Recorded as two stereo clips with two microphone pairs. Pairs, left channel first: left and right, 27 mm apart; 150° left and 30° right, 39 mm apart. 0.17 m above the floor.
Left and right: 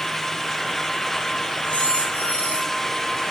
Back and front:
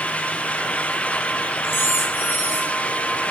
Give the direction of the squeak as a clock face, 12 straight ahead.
8 o'clock.